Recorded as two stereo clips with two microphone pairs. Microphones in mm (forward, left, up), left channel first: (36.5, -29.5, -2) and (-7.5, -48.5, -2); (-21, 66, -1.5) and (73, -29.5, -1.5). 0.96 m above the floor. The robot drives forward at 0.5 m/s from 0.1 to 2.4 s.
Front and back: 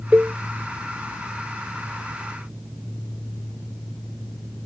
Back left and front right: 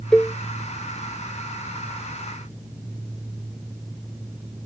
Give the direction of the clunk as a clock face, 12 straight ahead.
I don't hear a clunk.